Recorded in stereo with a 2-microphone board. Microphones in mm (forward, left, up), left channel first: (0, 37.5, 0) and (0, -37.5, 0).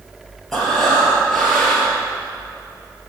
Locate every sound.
0.5 s breathing: 5° left (ahead or behind), 4 m